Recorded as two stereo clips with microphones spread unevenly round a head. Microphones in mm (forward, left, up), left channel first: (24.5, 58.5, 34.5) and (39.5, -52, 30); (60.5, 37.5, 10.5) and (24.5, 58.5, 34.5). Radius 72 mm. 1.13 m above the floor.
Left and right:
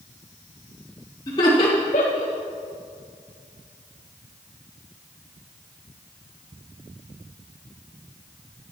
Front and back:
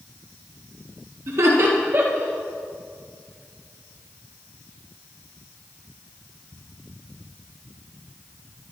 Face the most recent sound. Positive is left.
turn(degrees=110)